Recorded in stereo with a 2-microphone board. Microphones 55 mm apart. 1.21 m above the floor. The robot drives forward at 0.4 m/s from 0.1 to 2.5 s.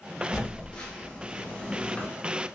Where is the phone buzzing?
15° left (ahead or behind), 1.2 m; by 2.1 s 20° left (ahead or behind), 1.0 m.